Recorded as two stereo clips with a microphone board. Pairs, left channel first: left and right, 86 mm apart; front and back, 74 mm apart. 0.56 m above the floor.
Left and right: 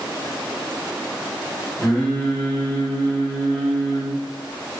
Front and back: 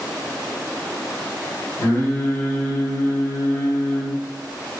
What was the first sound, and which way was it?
Singing, 10° left.